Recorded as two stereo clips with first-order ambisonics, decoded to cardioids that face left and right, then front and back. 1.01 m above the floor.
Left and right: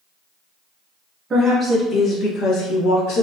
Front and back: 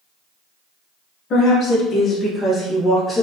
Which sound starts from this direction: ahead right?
A woman speaking, at 1.3 s.